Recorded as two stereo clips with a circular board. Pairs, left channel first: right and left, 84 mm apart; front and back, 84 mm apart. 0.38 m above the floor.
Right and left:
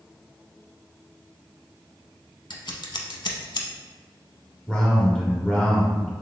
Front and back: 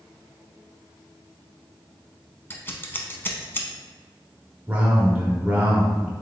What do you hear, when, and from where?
2.5 s scissors: 65° right, 0.7 m
4.7 s a man speaking: 150° right, 0.9 m